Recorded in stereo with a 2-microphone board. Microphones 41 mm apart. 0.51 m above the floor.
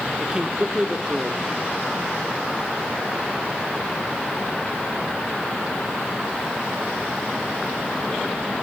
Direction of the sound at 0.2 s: 15° right (ahead or behind).